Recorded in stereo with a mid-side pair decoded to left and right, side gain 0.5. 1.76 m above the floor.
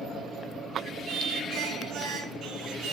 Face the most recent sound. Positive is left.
turn(degrees=-50)